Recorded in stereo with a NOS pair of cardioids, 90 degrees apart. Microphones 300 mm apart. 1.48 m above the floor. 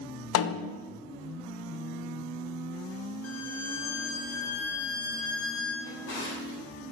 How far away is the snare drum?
About 0.6 m.